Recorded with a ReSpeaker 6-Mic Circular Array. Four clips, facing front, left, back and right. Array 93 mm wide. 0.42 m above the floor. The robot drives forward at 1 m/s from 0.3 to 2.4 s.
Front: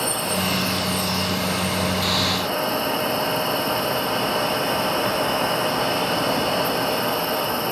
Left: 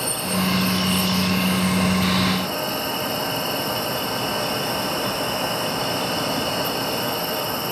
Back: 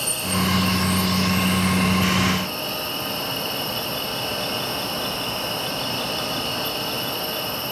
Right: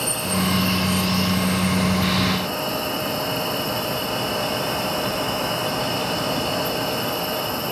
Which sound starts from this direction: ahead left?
An insect, at 0.0 s.